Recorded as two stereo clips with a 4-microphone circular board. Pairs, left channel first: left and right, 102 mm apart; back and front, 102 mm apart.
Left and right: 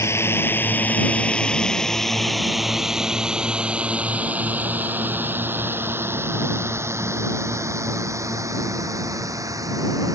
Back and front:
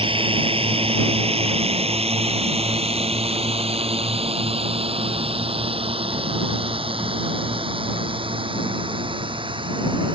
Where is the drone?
25° left; by 10.2 s 35° right.